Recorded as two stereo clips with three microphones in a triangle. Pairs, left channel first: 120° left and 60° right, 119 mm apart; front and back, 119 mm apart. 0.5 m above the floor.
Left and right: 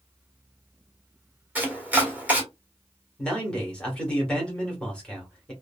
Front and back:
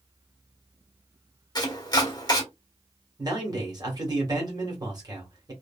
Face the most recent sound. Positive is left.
turn(degrees=-165)